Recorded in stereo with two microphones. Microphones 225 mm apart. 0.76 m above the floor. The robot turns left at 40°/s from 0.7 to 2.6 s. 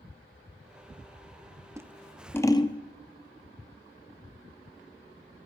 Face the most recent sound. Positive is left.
turn(degrees=20)  # may be behind; listen again after turning